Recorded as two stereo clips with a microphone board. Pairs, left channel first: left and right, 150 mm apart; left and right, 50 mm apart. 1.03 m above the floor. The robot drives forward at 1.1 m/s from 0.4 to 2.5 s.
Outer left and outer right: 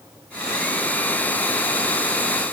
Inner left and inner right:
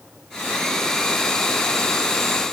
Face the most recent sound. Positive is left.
No sound to turn to.